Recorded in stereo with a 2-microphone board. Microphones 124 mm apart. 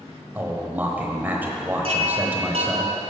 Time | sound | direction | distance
0.3 | a man speaking | 15° right (ahead or behind) | 1.0 m
1.8 | a chime | 60° right (ahead or behind) | 1.4 m